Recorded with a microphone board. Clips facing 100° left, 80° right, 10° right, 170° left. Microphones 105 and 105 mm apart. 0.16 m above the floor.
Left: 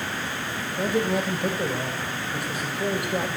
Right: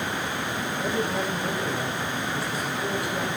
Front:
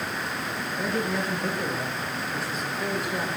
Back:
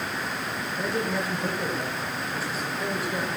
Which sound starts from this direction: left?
A man speaking, at 0.8 s.